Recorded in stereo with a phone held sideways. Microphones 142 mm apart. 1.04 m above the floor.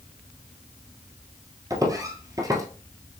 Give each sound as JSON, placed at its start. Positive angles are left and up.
{"t": 1.7, "sound": "footsteps", "side_deg": -25, "distance_m": 1.3}